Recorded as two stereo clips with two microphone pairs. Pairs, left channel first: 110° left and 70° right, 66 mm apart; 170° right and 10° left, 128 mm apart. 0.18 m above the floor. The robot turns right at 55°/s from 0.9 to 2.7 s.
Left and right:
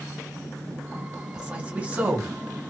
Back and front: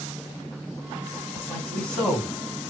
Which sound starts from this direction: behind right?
A man speaking, at 1.3 s.